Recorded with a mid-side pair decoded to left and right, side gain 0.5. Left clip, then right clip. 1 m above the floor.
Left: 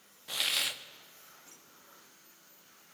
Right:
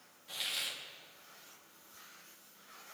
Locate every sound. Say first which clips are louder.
0.3 s a hiss: left 7 dB; 55° left, 0.9 m